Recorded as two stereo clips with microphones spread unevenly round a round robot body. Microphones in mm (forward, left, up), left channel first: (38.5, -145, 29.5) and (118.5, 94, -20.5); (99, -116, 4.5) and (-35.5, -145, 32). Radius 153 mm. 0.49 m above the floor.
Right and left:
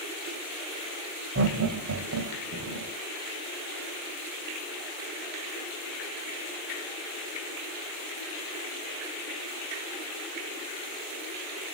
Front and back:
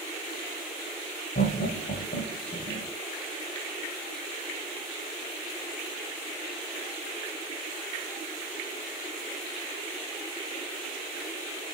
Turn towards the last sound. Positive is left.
turn(degrees=65)